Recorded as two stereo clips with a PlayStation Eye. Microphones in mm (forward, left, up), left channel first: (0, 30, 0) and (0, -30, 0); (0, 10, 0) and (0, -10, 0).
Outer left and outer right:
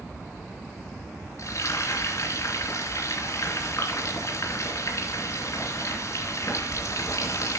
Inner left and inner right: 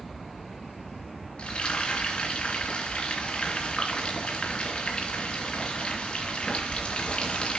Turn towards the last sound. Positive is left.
turn(degrees=55)  # may be behind; listen again after turning